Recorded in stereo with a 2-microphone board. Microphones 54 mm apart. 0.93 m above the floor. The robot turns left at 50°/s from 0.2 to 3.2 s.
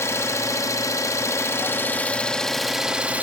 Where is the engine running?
120° left, 0.7 m; by 3.2 s 30° right, 0.7 m.